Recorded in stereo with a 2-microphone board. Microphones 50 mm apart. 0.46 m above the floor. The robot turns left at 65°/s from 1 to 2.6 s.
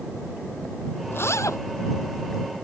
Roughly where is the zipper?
Behind left.